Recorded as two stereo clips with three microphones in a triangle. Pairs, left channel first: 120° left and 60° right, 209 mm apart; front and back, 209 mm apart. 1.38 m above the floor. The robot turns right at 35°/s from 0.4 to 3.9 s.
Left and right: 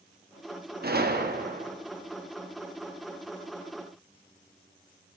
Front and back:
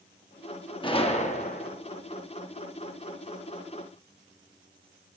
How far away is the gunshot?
About 1.1 m.